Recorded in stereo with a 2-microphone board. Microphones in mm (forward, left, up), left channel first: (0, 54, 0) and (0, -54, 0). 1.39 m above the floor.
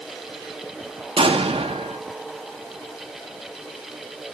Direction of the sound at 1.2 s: 70° right (ahead or behind).